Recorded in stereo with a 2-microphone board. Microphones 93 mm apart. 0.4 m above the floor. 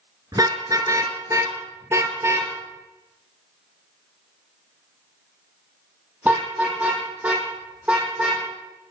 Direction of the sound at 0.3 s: 40° right (ahead or behind).